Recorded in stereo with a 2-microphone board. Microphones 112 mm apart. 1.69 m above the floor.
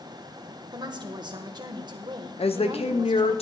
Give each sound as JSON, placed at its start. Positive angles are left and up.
{"t": 0.7, "sound": "a woman speaking", "side_deg": -40, "distance_m": 1.5}
{"t": 2.4, "sound": "a woman speaking", "side_deg": 65, "distance_m": 1.1}